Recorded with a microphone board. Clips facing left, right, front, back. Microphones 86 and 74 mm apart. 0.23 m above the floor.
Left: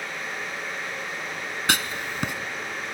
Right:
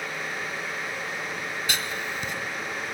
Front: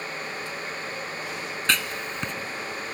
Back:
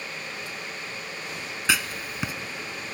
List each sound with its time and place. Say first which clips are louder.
1.7 s writing: left 7 dB, back 1 dB; 100° left, 0.7 m